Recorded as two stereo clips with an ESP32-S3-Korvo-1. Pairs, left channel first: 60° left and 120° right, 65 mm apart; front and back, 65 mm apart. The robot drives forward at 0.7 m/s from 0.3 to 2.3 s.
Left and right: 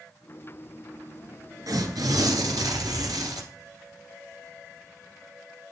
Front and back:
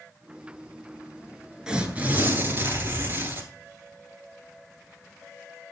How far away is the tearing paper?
About 1.0 m.